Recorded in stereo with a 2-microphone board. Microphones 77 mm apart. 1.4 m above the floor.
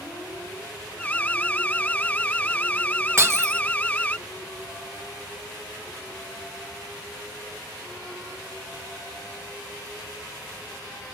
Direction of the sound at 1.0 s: 20° left (ahead or behind).